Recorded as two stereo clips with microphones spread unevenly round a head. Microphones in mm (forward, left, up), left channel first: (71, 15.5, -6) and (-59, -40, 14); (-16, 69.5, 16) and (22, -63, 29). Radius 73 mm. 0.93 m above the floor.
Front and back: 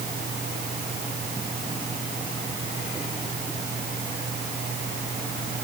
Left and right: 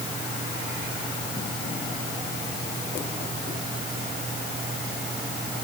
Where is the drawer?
I don't hear a drawer.